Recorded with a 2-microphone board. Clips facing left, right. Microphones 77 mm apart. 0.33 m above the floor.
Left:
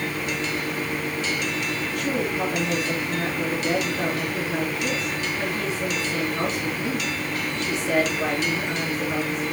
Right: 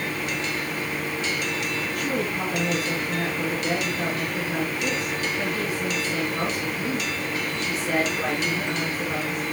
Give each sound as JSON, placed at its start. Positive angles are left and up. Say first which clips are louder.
{"t": 1.9, "sound": "a woman speaking", "louder": "left 2 dB", "side_deg": 0, "distance_m": 4.5}